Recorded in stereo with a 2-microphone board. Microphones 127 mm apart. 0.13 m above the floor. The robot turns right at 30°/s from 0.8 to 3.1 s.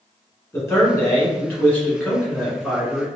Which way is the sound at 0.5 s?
20° left (ahead or behind).